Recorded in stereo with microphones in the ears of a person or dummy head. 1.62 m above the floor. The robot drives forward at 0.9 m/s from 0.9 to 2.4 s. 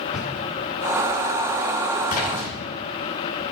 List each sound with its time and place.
0.1 s a drawer: 5° right (ahead or behind), 8.5 m
2.1 s a splash: 45° left (ahead or behind), 7 m